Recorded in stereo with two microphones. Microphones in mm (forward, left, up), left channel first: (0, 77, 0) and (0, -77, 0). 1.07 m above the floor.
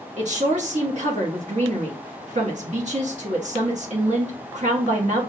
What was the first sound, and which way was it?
A woman speaking, 50° right (ahead or behind).